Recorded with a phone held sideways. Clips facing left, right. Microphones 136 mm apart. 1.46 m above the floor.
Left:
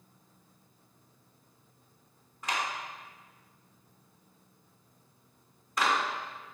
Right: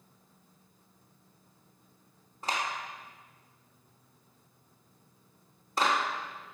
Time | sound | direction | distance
2.4 | a clap | 30° right (ahead or behind) | 3.5 m